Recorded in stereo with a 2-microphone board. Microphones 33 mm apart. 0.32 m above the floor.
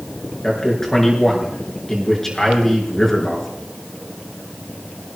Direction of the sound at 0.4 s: 15° left (ahead or behind).